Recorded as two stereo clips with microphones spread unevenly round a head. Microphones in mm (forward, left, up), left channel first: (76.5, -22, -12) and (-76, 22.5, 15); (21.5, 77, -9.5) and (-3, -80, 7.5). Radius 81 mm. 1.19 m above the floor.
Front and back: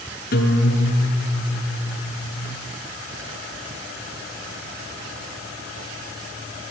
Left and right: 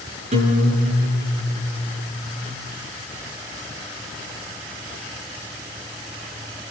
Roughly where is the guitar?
Ahead right.